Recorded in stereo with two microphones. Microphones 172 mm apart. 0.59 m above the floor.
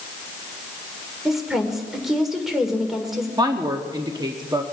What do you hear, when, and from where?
1.2 s a woman speaking: centre (ahead or behind), 2 m
3.4 s a woman speaking: 25° right (ahead or behind), 1.0 m